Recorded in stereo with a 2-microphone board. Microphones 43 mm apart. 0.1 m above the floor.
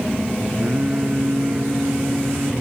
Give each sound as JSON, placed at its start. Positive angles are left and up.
{"t": 0.6, "sound": "singing", "side_deg": -45, "distance_m": 2.5}